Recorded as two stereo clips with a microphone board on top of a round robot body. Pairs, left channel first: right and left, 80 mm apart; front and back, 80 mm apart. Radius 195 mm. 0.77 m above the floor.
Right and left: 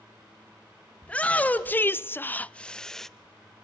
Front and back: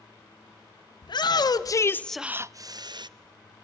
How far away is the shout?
About 1.6 m.